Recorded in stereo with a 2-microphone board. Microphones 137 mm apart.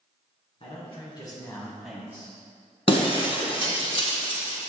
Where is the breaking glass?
40° left (ahead or behind), 1.1 m.